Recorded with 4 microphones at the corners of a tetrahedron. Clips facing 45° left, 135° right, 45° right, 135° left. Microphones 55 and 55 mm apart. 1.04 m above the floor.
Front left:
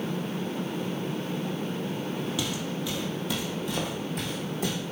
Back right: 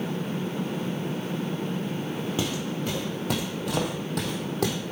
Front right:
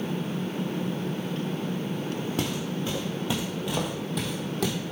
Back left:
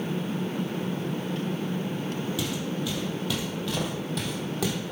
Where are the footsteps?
80° right, 2 m; by 4.8 s 140° right, 3 m.